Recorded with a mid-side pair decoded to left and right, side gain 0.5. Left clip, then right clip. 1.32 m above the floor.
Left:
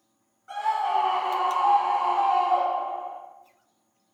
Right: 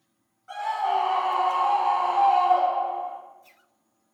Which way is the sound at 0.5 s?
5° left.